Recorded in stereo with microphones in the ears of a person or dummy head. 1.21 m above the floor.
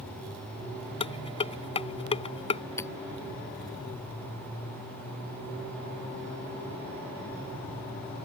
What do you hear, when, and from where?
1.0 s dishes clattering: 30° left (ahead or behind)
2.8 s hammering: 10° left (ahead or behind)